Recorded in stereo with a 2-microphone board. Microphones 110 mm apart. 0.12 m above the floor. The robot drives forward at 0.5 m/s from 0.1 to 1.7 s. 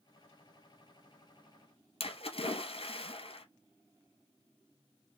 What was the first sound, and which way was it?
A splash, 60° left (ahead or behind).